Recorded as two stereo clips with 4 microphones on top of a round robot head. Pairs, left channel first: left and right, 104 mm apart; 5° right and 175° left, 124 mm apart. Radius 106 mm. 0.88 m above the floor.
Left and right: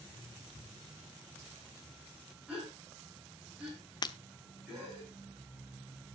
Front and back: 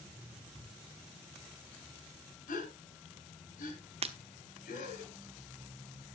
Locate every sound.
2.5 s a gasp: 5° right, 4.5 m
4.0 s breaking glass: 140° left, 1.2 m